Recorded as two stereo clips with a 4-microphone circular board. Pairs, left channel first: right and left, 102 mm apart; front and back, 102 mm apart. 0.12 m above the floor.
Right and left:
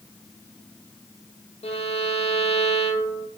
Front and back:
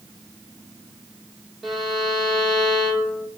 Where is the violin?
90° right, 0.8 m.